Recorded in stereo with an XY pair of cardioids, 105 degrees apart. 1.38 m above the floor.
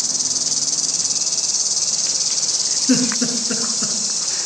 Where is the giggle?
45° left, 5 m.